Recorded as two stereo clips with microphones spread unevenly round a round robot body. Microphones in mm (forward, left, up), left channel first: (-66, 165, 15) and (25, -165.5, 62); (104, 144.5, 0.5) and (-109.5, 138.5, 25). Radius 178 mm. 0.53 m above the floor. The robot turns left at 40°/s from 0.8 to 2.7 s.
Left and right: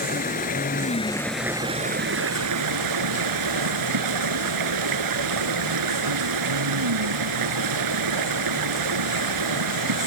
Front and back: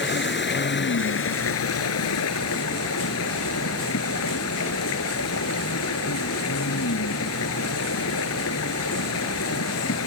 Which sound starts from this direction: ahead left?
Running water, at 0.0 s.